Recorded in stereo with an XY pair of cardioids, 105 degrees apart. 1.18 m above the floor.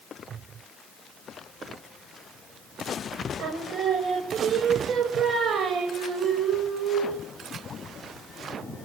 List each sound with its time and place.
3.4 s singing: 55° right, 4.5 m